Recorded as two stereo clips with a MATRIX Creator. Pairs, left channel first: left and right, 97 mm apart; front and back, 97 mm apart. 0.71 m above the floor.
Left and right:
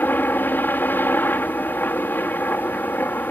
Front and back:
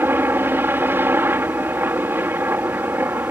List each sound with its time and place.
0.0 s a helicopter: 135° left